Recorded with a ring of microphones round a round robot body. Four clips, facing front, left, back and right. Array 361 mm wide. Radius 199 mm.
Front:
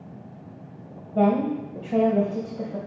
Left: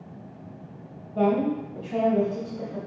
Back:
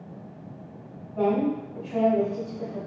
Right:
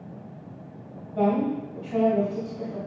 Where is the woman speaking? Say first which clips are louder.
Left 1 dB, front 2 dB; 5° left, 2.5 m.